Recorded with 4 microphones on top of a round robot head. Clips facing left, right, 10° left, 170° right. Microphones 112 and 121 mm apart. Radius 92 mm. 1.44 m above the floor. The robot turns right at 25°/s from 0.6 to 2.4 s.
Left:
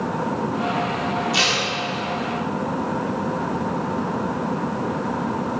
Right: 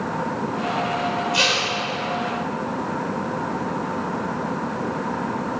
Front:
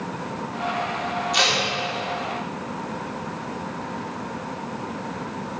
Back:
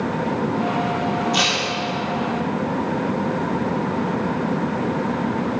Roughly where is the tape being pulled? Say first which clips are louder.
Even, back 2 dB; left.